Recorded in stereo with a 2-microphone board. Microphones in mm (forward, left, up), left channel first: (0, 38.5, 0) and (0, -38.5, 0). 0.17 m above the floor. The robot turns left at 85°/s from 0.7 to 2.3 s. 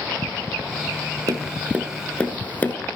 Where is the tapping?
50° right (ahead or behind), 1.0 m; by 2.8 s 20° left (ahead or behind), 1.0 m.